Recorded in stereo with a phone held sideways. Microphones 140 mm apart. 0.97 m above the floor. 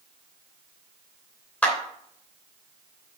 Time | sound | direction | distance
1.6 | a clap | 15° left (ahead or behind) | 3 m